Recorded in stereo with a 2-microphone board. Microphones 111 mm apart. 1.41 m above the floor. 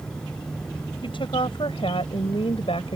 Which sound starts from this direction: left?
A woman speaking, at 1.0 s.